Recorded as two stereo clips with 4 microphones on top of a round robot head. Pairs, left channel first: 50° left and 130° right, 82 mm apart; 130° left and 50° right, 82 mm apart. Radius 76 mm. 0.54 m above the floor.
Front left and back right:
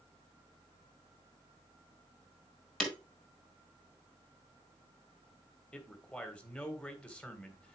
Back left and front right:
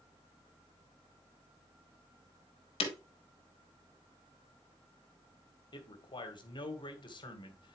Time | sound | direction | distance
2.8 | breaking glass | 130° left | 1.5 m
5.7 | a man speaking | 125° left | 1.9 m